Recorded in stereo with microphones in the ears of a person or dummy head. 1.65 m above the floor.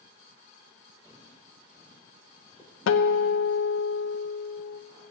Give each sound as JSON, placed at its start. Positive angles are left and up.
{"t": 1.0, "sound": "footsteps", "side_deg": -10, "distance_m": 2.5}
{"t": 2.9, "sound": "a guitar", "side_deg": 65, "distance_m": 0.7}